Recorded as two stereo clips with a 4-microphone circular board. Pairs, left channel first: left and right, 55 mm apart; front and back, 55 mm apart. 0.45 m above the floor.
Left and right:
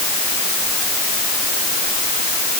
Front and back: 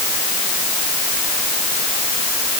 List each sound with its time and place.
Only background noise.